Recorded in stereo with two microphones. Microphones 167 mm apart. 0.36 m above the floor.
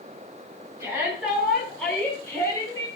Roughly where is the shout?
Centre.